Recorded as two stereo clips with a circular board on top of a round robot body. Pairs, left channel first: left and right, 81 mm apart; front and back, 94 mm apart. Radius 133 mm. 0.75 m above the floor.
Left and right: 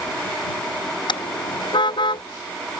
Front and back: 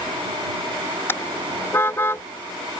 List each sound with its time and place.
1.1 s a car horn: 65° left